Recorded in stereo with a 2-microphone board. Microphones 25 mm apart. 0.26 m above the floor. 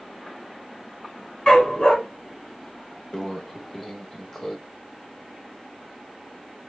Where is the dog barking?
35° left (ahead or behind), 1.3 m.